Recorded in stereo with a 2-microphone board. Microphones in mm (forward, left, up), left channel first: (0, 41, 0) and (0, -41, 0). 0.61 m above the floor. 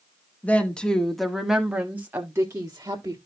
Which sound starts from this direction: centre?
A woman speaking, at 0.4 s.